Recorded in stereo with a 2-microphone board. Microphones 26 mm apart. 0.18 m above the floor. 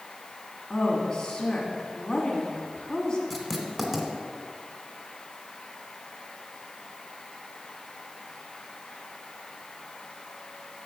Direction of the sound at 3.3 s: 10° right (ahead or behind).